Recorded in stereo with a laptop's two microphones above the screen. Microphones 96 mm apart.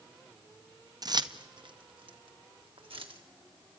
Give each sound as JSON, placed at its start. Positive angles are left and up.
{"t": 1.0, "sound": "keys jangling", "side_deg": -45, "distance_m": 0.6}